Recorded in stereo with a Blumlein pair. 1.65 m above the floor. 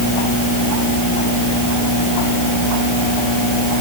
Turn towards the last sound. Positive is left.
No sound to turn to.